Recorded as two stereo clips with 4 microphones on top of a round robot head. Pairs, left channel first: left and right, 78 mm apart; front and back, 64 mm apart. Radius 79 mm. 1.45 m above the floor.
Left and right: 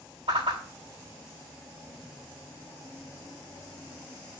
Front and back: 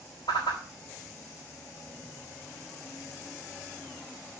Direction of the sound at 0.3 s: 50° right.